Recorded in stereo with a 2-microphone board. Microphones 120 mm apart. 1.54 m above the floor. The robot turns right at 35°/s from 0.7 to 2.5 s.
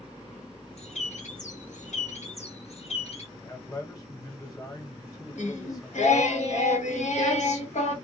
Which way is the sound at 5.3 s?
80° left.